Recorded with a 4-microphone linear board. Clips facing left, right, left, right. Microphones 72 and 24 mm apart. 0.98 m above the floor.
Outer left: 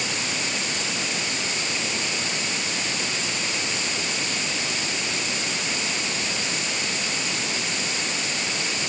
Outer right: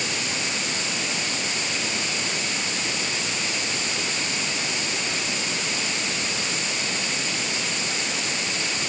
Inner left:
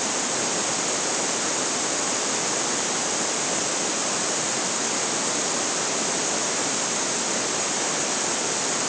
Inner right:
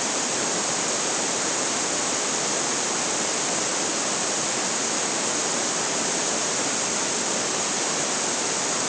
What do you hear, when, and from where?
Only background noise.